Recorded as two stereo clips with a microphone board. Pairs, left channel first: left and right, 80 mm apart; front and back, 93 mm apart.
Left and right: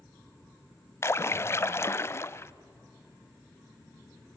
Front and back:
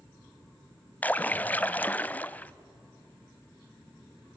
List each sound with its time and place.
1.0 s a splash: 60° left, 0.5 m